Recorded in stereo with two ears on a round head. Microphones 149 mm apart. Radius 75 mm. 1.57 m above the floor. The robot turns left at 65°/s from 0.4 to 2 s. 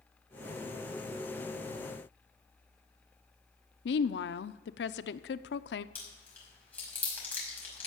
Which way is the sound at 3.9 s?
75° left (ahead or behind).